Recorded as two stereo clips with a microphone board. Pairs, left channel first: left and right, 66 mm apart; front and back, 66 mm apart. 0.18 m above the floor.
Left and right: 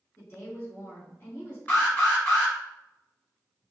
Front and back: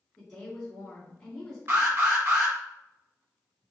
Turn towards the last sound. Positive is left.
turn(degrees=145)